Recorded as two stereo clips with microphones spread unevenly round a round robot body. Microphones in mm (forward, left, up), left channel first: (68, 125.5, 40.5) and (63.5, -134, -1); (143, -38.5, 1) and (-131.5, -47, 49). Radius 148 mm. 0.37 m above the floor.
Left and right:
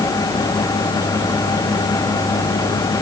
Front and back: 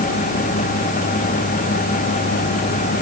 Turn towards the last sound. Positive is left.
No sound to turn to.